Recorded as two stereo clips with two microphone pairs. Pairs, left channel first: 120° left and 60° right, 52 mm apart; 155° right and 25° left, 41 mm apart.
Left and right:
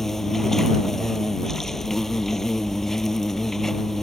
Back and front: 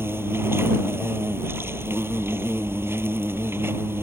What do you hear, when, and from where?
0.0 s an insect: 35° left